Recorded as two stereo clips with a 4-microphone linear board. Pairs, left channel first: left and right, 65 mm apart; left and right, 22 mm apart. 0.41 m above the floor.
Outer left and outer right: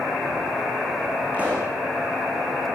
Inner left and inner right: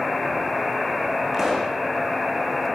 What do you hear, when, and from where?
1.3 s a pop: 25° right (ahead or behind), 7 m